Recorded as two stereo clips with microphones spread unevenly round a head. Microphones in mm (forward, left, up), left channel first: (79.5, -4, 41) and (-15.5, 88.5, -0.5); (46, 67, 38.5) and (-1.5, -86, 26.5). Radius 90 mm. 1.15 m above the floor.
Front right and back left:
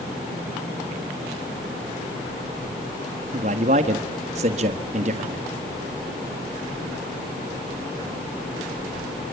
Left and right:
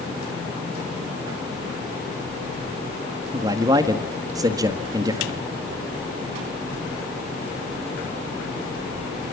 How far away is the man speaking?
About 1.6 m.